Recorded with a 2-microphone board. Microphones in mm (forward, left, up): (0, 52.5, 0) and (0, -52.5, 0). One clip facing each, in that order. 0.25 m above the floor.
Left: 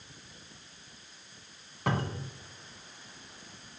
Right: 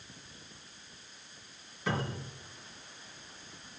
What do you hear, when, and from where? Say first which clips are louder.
1.9 s a cupboard door: left 2 dB; 55° left (ahead or behind), 1.9 m